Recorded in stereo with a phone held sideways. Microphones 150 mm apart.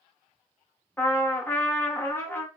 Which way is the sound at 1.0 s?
15° left (ahead or behind).